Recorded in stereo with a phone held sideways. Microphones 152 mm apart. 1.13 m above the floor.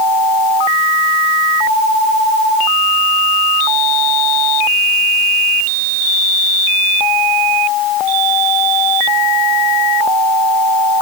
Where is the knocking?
No knocking in this recording.